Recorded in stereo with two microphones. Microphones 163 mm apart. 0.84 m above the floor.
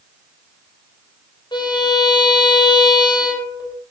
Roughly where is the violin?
Left.